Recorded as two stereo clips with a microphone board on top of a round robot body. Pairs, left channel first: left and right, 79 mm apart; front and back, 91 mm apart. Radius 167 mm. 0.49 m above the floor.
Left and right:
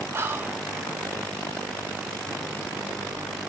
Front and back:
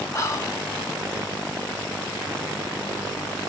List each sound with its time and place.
0.1 s whispering: 40° right, 1.0 m